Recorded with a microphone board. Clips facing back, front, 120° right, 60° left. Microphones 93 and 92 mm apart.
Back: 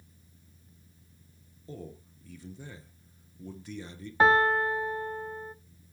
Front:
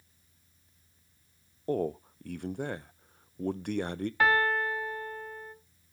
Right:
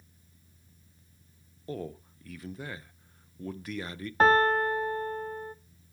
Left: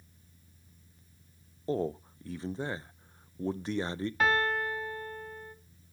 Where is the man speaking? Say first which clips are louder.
Front 14 dB, left 6 dB; 5° left, 0.5 m.